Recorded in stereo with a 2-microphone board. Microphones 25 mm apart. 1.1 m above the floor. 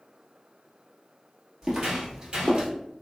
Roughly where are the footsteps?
Centre.